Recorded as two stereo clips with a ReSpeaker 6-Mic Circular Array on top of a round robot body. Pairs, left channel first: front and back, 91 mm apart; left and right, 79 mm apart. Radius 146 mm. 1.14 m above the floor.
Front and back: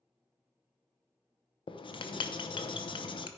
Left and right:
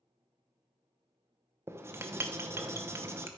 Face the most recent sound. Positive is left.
turn(degrees=-30)